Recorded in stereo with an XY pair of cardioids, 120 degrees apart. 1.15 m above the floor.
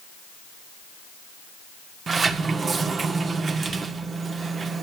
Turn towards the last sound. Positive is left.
turn(degrees=-40)